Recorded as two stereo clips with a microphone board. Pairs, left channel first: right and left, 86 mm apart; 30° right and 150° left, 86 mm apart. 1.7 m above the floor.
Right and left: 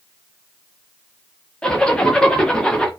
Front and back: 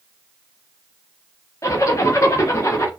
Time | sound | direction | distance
1.6 | a zipper | 15° right | 1.0 m